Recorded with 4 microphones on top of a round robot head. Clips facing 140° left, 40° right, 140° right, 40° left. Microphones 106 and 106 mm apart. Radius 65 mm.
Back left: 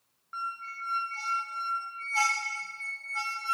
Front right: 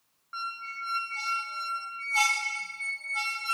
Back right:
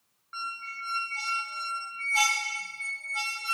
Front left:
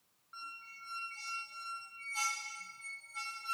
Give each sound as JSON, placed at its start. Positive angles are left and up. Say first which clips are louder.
{"t": 0.3, "sound": "a squeak", "louder": "even, back right 13 dB", "azimuth_deg": -110, "distance_m": 0.5}